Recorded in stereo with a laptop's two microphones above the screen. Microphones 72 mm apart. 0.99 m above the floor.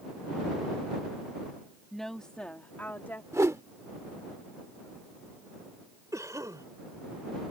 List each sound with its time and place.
1.9 s a woman speaking: 5° left (ahead or behind); by 3.2 s 35° left (ahead or behind)
3.3 s a whoosh: 45° right (ahead or behind)
6.1 s a cough: 50° right (ahead or behind)